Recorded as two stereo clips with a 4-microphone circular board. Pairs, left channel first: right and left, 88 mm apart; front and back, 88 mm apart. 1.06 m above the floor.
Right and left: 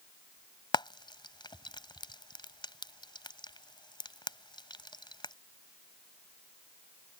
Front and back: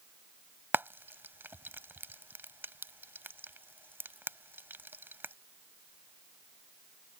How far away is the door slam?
No door slam in this recording.